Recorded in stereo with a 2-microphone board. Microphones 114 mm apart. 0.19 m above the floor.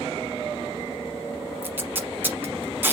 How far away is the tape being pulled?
About 1.0 m.